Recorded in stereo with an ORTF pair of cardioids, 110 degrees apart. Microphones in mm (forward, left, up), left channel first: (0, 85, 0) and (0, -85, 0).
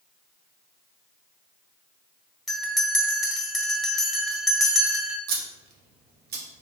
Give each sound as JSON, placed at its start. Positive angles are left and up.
{"t": 2.5, "sound": "a bell", "azimuth_deg": 0, "distance_m": 0.7}
{"t": 5.3, "sound": "scissors", "azimuth_deg": -70, "distance_m": 0.8}